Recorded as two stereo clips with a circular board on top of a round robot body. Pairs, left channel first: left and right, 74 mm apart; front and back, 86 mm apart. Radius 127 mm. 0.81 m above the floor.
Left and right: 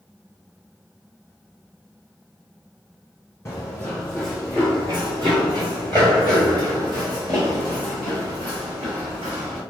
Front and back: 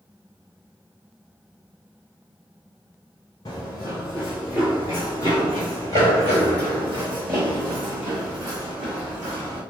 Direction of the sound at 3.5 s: 40° left.